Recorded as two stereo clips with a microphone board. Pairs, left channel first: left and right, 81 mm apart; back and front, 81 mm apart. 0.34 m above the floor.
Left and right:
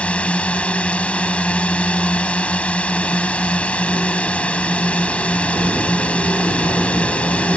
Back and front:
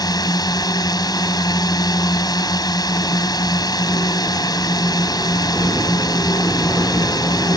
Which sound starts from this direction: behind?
A drone, at 0.0 s.